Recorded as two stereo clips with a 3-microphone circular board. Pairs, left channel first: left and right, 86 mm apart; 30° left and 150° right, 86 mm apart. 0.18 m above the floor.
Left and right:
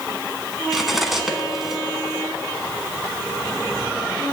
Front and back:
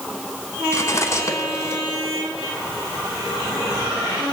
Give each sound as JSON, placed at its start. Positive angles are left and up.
{"t": 0.7, "sound": "cutlery clinking", "azimuth_deg": -5, "distance_m": 0.9}